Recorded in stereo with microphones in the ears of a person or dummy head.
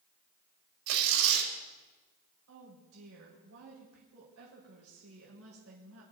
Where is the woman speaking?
70° right (ahead or behind), 5 m.